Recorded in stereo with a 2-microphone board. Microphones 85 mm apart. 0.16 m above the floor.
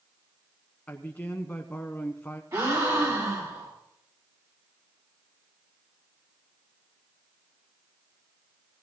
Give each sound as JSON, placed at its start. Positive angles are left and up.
{"t": 0.9, "sound": "a man speaking", "side_deg": 20, "distance_m": 1.1}
{"t": 2.5, "sound": "a gasp", "side_deg": -45, "distance_m": 6.0}